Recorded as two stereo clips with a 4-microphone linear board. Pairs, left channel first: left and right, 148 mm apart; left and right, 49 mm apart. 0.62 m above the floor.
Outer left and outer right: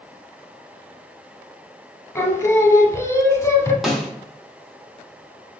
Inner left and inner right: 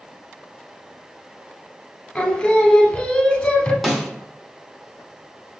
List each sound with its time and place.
2.1 s singing: 20° left (ahead or behind), 0.6 m
3.8 s a snare drum: centre (ahead or behind), 0.8 m